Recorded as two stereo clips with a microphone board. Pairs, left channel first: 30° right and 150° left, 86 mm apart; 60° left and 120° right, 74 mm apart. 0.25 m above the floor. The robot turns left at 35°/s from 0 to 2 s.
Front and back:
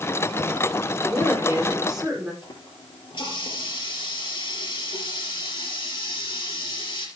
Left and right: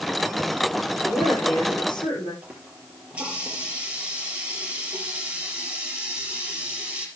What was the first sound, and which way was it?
A woman speaking, 90° left.